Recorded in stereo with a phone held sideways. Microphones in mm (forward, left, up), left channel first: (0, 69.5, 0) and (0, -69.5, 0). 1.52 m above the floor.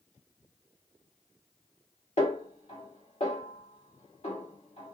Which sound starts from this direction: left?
A snare drum, at 2.2 s.